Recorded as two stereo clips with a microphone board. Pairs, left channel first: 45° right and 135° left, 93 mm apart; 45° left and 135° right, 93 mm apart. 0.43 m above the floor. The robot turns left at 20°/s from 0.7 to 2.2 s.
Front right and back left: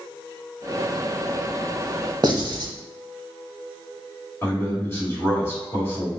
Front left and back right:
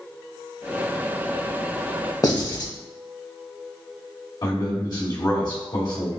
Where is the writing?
95° left, 0.6 m.